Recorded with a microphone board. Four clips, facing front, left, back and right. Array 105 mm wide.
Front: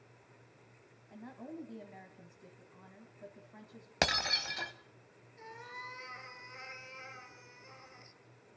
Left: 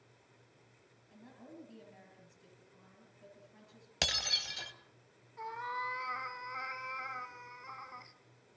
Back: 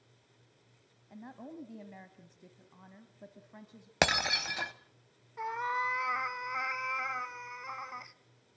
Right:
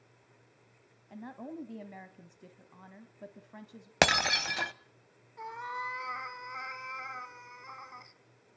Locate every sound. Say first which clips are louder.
1.1 s a woman speaking: right 11 dB, even; 105° right, 1.6 m
4.0 s breaking glass: right 14 dB, back 4 dB; 110° right, 0.7 m
5.4 s a cat meowing: right 1 dB, back 15 dB; 175° right, 0.9 m